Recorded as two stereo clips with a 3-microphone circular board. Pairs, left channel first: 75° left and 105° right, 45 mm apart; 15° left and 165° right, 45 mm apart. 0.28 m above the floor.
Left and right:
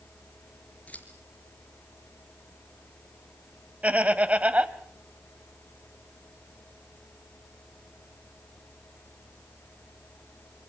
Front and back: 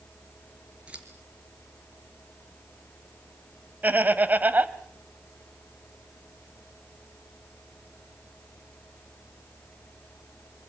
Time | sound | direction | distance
0.9 | scissors | 130° left | 4 m
3.8 | laughter | 145° right | 1.2 m